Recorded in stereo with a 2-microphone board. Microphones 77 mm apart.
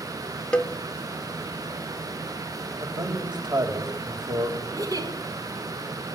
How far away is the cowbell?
About 1.0 m.